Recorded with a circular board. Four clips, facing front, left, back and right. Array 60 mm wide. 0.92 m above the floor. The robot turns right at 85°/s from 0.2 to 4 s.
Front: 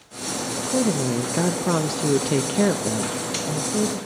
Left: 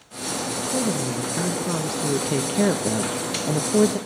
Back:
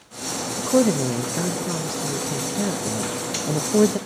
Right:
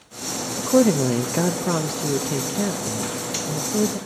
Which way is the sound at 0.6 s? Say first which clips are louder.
Right 10 dB, back 4 dB; 130° right.